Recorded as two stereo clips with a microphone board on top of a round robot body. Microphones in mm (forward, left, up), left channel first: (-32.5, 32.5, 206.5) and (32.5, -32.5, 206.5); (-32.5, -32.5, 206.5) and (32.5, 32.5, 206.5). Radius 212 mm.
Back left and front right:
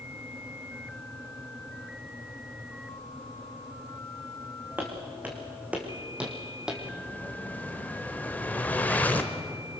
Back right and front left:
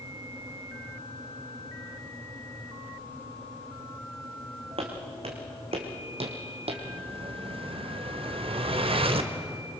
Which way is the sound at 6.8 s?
60° left.